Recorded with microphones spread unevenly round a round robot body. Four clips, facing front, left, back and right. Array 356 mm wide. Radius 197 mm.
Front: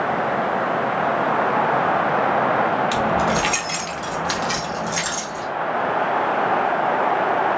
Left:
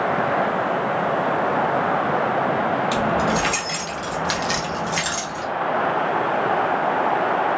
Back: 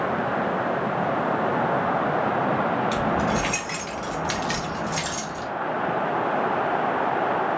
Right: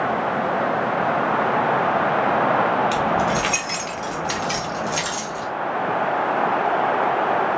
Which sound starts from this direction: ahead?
Keys jangling, at 2.9 s.